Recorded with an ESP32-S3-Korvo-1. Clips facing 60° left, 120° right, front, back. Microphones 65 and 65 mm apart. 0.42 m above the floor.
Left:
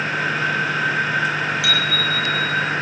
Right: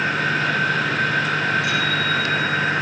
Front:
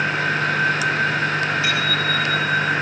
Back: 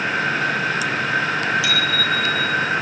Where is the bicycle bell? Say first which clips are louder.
Even, even; 50° left, 8 m; by 2.7 s 60° left, 7.5 m.